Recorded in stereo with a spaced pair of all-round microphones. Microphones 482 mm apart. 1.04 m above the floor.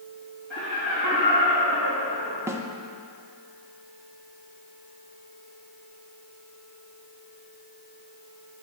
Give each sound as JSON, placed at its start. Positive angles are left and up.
{"t": 0.5, "sound": "laughter", "side_deg": -70, "distance_m": 1.5}
{"t": 2.5, "sound": "a snare drum", "side_deg": -5, "distance_m": 0.5}